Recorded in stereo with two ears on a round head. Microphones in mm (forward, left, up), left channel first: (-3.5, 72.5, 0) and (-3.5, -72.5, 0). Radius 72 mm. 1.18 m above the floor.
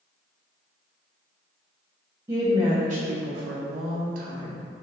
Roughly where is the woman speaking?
Right.